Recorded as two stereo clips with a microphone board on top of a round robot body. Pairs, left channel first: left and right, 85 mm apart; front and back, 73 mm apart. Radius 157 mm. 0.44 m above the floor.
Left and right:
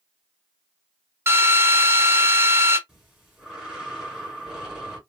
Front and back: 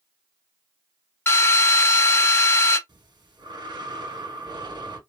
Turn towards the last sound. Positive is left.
turn(degrees=-175)